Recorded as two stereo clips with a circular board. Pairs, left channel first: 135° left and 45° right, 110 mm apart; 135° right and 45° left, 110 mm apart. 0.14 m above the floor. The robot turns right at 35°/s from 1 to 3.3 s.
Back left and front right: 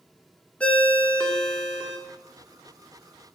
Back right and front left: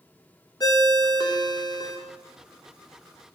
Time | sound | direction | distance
0.6 | a ringtone | 155° right | 0.7 m